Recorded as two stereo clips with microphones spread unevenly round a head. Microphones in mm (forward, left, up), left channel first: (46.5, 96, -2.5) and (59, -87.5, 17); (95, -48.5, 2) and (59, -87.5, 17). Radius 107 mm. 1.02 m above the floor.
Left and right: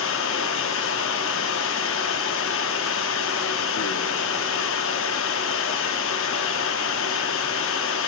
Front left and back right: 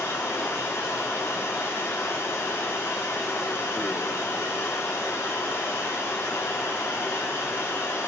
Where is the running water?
130° left, 1.0 m.